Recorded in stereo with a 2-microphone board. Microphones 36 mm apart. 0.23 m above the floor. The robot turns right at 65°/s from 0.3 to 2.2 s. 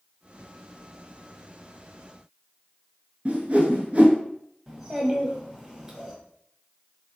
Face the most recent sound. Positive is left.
turn(degrees=-15)  # may be behind; listen again after turning